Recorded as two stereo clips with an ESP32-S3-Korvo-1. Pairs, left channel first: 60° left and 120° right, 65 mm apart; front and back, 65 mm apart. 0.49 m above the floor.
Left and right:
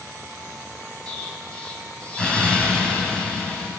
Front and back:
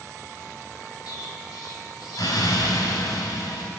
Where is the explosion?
15° right, 3.5 m.